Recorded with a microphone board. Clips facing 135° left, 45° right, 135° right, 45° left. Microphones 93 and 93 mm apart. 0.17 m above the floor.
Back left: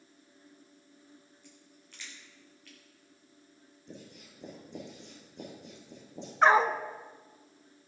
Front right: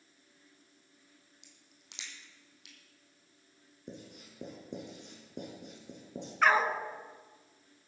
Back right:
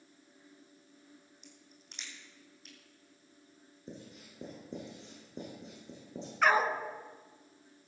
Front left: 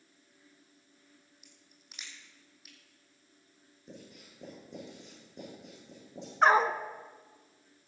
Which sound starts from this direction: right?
Writing, at 3.9 s.